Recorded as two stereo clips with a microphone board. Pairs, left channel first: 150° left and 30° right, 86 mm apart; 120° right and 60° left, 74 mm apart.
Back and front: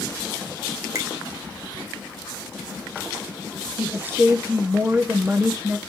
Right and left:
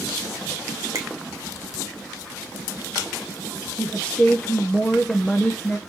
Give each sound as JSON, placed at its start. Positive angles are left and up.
{"t": 0.9, "sound": "a finger snap", "azimuth_deg": 15, "distance_m": 2.0}
{"t": 3.8, "sound": "a woman speaking", "azimuth_deg": -70, "distance_m": 0.7}